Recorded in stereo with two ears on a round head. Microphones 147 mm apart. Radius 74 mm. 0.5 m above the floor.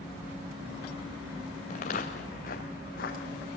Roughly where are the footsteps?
Left.